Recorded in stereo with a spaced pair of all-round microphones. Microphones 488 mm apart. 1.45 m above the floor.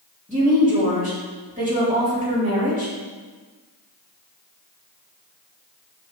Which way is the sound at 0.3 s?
15° right (ahead or behind).